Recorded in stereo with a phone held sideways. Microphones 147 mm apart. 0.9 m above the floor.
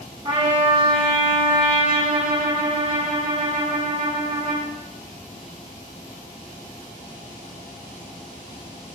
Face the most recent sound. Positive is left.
turn(degrees=-40)  # may be behind; listen again after turning